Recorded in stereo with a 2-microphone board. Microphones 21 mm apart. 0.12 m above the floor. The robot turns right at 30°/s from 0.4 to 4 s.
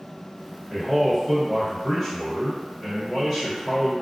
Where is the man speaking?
115° left, 1.9 m; by 3.9 s 150° right, 1.9 m.